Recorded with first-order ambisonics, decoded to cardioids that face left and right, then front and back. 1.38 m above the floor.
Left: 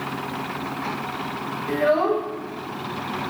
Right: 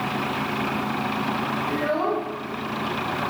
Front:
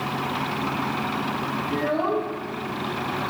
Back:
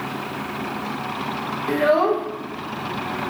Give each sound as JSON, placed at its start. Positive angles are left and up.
{"t": 1.7, "sound": "a child speaking", "azimuth_deg": 165, "distance_m": 0.8}